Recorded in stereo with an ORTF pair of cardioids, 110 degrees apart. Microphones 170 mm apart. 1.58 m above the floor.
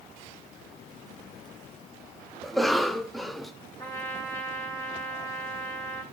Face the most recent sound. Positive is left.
turn(degrees=20)